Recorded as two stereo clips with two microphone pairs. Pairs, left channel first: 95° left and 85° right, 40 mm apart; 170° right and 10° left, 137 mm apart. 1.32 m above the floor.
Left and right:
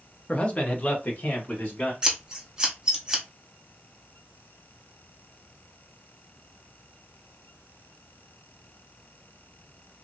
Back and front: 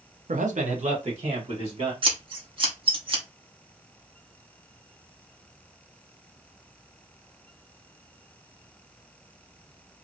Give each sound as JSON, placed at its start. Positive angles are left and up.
{"t": 0.3, "sound": "a man speaking", "azimuth_deg": 30, "distance_m": 0.7}
{"t": 2.0, "sound": "scissors", "azimuth_deg": -25, "distance_m": 0.9}